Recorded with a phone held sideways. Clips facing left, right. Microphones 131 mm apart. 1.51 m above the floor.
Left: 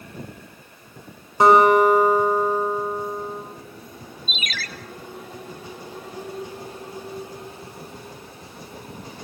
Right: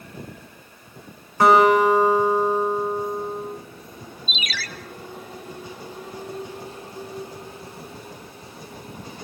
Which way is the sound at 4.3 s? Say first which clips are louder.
Even; 45° left (ahead or behind).